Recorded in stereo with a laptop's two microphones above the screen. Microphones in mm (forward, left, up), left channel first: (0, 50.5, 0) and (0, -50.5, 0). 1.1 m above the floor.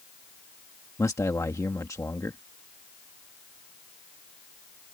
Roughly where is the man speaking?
Left.